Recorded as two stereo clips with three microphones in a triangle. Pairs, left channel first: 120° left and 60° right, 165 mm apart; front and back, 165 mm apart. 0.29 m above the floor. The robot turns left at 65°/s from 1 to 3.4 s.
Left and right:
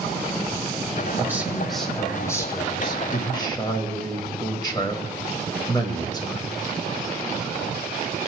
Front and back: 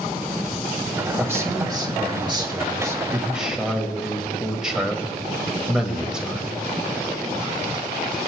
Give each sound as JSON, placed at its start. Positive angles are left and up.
{"t": 1.2, "sound": "a man speaking", "azimuth_deg": -115, "distance_m": 1.2}